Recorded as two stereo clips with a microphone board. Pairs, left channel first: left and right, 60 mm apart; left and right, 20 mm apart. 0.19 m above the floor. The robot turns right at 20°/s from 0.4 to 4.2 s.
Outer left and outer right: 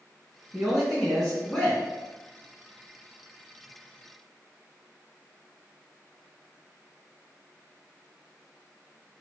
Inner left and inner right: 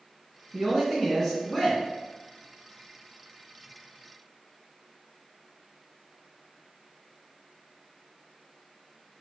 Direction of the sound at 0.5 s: 5° right (ahead or behind).